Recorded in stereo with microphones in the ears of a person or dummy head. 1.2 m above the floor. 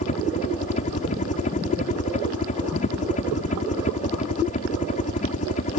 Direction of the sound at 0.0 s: 40° left (ahead or behind).